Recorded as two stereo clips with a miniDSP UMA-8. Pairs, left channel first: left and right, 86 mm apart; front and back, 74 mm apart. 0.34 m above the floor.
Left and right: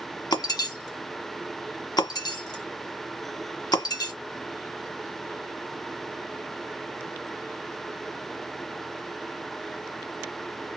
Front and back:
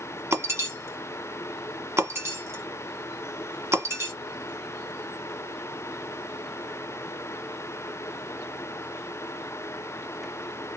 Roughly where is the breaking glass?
Behind left.